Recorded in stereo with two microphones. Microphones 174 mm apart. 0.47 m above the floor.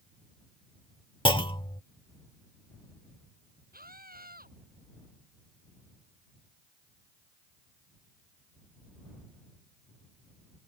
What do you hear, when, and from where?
1.2 s a clunk: 30° left (ahead or behind)
3.7 s a scream: 60° right (ahead or behind)